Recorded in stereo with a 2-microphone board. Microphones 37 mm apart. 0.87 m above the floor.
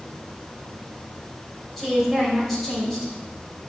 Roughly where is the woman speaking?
Centre.